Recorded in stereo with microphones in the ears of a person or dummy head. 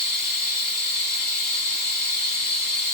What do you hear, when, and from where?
0.0 s running water: 40° left (ahead or behind), 1.3 m